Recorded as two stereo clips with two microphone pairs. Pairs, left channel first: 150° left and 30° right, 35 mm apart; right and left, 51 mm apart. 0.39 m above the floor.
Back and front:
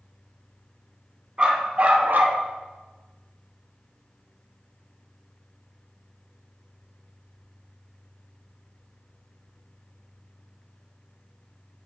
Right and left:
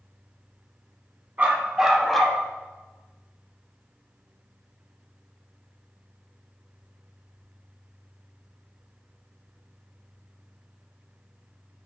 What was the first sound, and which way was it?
A dog barking, 35° left.